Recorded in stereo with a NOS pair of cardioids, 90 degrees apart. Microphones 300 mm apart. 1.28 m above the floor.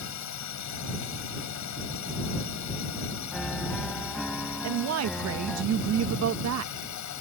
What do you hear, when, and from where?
0.0 s a drone: 65° left; by 7.2 s 75° left
3.3 s a piano: straight ahead
4.6 s a woman speaking: 60° right